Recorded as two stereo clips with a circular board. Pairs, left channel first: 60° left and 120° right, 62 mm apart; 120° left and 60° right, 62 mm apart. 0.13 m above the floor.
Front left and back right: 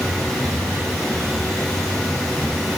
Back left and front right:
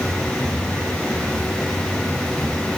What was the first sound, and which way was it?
Only background noise.